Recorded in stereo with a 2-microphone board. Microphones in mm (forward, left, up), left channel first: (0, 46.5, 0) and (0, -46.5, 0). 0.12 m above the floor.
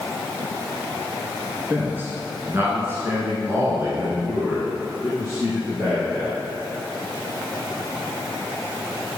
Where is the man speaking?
20° right (ahead or behind), 2.0 m; by 6.4 s 25° right (ahead or behind), 3 m.